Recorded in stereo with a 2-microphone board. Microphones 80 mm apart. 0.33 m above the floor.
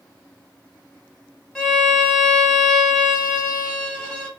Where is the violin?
5° left (ahead or behind), 0.9 m.